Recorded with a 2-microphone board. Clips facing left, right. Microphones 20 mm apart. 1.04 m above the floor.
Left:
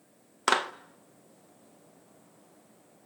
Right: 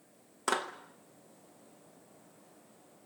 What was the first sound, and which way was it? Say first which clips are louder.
A clap: left 6 dB; 40° left (ahead or behind).